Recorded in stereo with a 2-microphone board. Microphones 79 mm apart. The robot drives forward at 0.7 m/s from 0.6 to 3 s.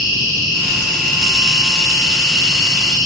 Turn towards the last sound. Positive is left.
turn(degrees=-5)  # may be behind; listen again after turning